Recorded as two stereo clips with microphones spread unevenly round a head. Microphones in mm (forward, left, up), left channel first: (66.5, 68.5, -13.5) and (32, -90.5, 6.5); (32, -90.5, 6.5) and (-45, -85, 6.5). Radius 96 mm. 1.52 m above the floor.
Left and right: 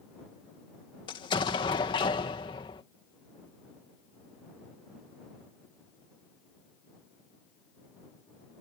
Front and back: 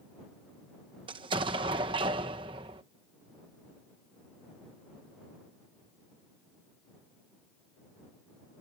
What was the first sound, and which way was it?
An explosion, 145° left.